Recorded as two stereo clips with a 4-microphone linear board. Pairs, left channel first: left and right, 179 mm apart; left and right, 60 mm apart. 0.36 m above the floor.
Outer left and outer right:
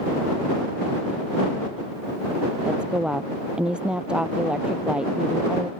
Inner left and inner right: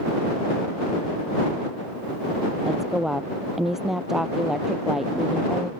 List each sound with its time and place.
2.6 s a woman speaking: 5° right (ahead or behind)